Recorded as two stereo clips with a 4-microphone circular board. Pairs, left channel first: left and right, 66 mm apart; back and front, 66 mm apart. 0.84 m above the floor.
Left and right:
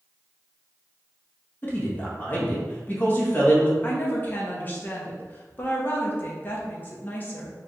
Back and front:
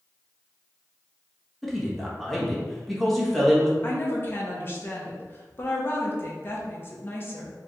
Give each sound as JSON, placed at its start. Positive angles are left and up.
{"t": 1.6, "sound": "a man speaking", "azimuth_deg": 95, "distance_m": 1.1}
{"t": 3.8, "sound": "a woman speaking", "azimuth_deg": 140, "distance_m": 0.9}